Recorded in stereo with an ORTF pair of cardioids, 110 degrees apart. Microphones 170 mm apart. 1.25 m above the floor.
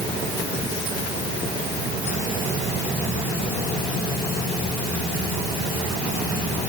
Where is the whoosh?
No whoosh in this recording.